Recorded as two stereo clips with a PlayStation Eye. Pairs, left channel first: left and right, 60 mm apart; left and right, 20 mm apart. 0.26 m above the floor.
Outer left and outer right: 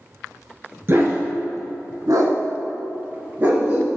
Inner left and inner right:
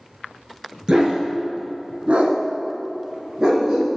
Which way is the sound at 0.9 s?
40° right (ahead or behind).